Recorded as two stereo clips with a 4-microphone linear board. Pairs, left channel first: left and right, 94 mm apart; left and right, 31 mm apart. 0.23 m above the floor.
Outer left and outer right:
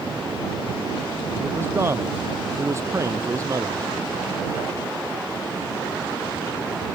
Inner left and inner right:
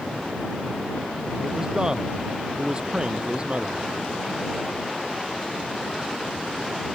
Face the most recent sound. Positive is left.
turn(degrees=-35)  # may be behind; listen again after turning